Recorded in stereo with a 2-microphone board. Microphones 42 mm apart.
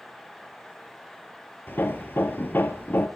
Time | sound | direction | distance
1.7 | hammering | 55° left (ahead or behind) | 2 m